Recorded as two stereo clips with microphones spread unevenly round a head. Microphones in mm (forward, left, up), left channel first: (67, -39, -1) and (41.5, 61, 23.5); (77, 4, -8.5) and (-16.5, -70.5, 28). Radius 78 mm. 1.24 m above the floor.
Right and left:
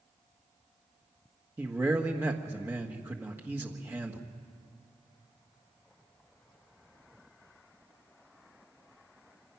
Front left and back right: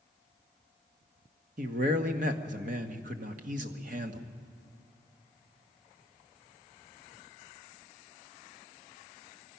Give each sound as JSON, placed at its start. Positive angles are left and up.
{"t": 1.6, "sound": "a man speaking", "azimuth_deg": 180, "distance_m": 1.4}